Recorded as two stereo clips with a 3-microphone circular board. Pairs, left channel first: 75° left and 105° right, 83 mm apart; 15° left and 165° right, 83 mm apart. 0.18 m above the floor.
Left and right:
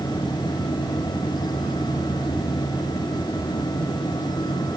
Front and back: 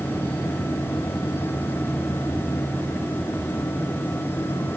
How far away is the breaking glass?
I don't hear breaking glass.